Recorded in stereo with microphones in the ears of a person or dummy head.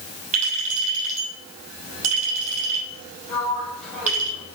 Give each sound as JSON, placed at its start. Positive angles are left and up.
{"t": 0.3, "sound": "a clink", "side_deg": -40, "distance_m": 5.5}
{"t": 3.3, "sound": "a sliding door", "side_deg": 5, "distance_m": 4.5}